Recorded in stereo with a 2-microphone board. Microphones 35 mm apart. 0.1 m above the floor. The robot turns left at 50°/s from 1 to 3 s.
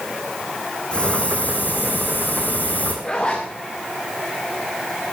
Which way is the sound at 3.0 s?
25° left (ahead or behind).